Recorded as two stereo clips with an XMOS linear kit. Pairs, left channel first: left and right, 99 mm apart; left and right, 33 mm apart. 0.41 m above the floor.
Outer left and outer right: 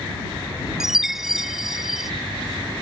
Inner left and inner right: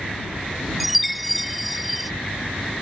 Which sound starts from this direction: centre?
A chime, at 0.8 s.